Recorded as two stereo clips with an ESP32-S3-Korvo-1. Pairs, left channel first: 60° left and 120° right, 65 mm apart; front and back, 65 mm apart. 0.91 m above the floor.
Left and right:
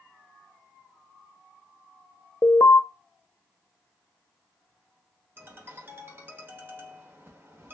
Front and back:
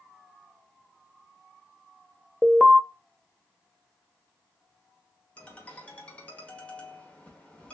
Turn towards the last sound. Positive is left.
turn(degrees=-70)